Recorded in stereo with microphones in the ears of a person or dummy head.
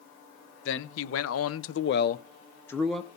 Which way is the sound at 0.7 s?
70° left (ahead or behind).